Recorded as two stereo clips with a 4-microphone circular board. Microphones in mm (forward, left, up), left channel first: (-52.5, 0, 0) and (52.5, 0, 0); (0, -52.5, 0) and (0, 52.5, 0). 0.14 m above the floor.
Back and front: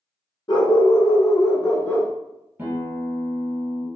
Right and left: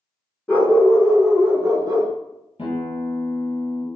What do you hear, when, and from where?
0.5 s a dog barking: 155° right, 0.8 m; by 2.1 s 110° left, 0.7 m
2.6 s a guitar: 65° right, 1.9 m